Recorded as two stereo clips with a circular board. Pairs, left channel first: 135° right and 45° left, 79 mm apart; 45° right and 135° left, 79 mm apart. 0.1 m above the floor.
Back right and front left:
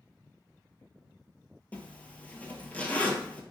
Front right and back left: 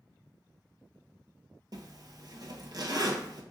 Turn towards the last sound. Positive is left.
turn(degrees=155)